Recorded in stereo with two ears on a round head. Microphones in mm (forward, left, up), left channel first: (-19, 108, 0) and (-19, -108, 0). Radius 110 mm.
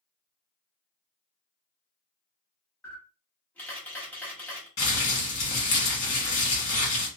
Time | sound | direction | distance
2.8 | a camera shutter | 10° left (ahead or behind) | 1.2 m
4.8 | crumpling | 50° left (ahead or behind) | 1.5 m